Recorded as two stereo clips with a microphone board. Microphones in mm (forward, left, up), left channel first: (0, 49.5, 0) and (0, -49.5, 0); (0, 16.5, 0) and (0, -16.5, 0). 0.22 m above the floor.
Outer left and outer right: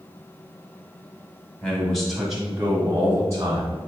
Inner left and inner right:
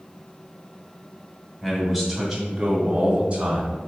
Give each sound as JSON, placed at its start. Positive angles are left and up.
{"t": 1.6, "sound": "a man speaking", "side_deg": 10, "distance_m": 1.4}